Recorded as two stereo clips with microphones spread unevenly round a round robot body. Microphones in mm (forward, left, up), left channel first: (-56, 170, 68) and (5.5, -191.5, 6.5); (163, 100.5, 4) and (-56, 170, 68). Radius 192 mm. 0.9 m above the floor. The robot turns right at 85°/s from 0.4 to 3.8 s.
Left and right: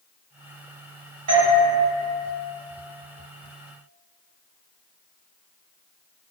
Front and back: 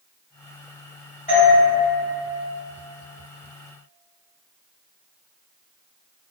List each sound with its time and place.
1.3 s a doorbell: 60° right, 1.3 m; by 1.6 s 30° right, 1.3 m